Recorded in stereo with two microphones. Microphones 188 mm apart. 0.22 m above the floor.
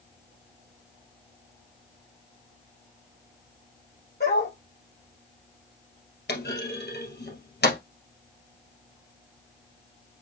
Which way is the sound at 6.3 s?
75° left (ahead or behind).